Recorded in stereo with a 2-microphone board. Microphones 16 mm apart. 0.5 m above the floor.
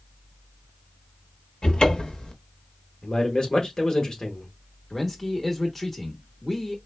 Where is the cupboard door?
65° left (ahead or behind), 0.7 m.